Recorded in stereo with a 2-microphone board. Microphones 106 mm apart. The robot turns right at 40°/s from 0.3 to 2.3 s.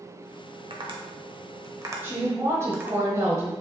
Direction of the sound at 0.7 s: 50° right (ahead or behind).